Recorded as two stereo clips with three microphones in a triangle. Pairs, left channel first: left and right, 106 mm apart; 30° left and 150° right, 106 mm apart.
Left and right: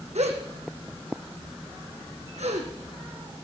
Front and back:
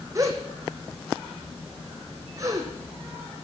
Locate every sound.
0.1 s a gasp: 90° right, 2.5 m